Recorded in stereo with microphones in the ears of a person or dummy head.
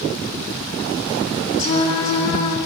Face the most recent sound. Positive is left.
turn(degrees=30)  # may be behind; listen again after turning